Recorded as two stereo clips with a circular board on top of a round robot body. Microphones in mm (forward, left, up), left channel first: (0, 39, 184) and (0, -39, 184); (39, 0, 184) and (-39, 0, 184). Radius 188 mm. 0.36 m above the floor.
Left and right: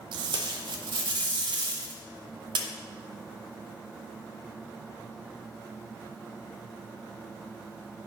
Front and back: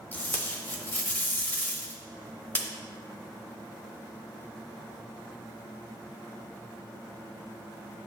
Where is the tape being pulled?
70° right, 0.8 m.